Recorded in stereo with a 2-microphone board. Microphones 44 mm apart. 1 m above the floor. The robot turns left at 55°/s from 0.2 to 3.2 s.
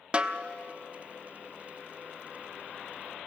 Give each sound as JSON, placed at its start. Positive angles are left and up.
{"t": 0.1, "sound": "a snare drum", "side_deg": -25, "distance_m": 0.7}